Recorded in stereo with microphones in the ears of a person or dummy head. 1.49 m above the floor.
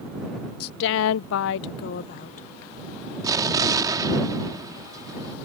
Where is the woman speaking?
50° left (ahead or behind); by 2.5 s 35° left (ahead or behind).